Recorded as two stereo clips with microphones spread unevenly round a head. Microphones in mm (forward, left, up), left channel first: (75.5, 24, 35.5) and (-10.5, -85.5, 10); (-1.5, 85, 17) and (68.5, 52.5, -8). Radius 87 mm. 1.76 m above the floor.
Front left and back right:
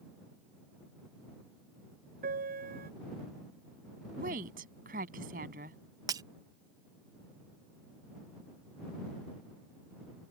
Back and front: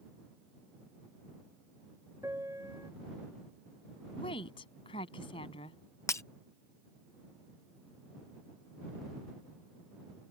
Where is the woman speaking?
175° right.